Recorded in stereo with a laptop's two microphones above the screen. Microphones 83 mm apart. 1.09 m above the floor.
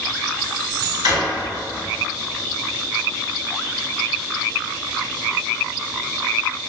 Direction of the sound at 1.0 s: 60° right (ahead or behind).